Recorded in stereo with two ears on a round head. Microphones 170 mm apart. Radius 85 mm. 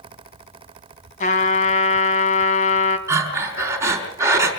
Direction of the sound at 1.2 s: 40° left (ahead or behind).